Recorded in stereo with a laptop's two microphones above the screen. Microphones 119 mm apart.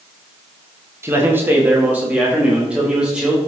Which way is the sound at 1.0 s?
20° right (ahead or behind).